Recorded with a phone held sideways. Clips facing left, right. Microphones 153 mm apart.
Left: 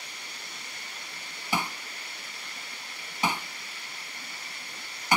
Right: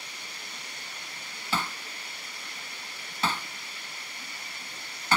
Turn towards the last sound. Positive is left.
turn(degrees=15)  # may be behind; listen again after turning